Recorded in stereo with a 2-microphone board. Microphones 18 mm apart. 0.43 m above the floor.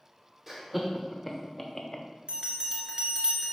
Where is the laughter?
15° right (ahead or behind), 1.2 m; by 2.0 s 20° left (ahead or behind), 1.0 m.